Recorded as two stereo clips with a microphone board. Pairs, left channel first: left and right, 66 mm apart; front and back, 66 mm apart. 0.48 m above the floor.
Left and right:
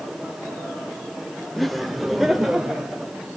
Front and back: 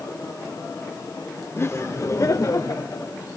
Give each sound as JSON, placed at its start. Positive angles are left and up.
{"t": 1.6, "sound": "laughter", "azimuth_deg": 5, "distance_m": 1.0}